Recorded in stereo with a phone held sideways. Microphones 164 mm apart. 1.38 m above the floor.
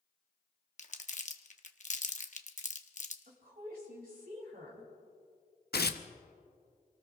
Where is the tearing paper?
75° left (ahead or behind), 0.7 m.